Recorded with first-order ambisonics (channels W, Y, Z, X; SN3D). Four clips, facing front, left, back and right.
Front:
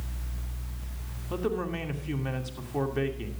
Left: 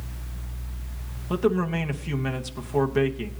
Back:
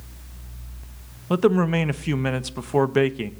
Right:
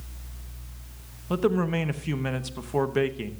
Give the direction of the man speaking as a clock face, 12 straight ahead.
6 o'clock.